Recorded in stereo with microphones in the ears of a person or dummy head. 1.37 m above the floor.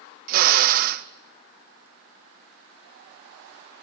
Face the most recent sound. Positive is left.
turn(degrees=-50)  # may be behind; listen again after turning